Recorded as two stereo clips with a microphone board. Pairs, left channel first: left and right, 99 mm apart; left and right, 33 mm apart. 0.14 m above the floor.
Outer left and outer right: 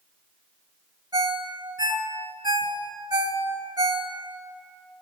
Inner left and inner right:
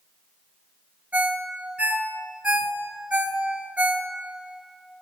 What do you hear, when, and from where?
1.1 s a ringtone: 45° right (ahead or behind), 1.3 m